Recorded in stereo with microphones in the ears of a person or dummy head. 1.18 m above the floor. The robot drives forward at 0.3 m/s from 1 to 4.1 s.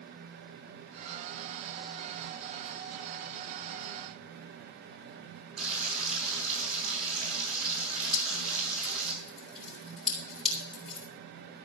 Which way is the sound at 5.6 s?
80° right.